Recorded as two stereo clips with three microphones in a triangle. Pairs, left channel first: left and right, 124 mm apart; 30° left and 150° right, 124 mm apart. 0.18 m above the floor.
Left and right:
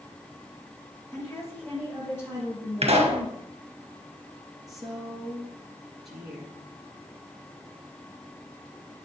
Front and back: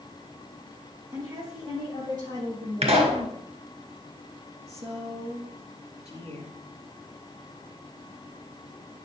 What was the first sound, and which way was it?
A woman speaking, 150° left.